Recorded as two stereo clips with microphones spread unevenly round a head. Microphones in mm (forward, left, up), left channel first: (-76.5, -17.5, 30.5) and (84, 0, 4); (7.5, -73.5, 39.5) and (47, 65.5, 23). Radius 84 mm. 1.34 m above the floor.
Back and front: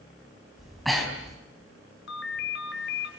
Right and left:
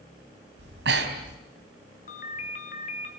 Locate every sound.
0.6 s breathing: 100° left, 3.5 m
2.1 s a ringtone: 155° right, 2.5 m